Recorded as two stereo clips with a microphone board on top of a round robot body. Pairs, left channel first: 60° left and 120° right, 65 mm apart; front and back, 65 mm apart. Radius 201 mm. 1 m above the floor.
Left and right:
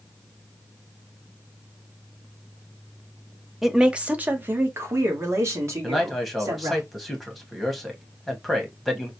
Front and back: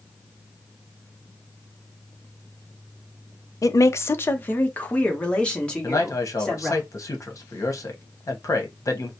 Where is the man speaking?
30° right, 1.2 m.